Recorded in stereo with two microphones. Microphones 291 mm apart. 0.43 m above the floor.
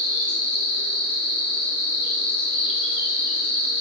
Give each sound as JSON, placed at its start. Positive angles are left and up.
{"t": 0.0, "sound": "an insect", "side_deg": -90, "distance_m": 1.0}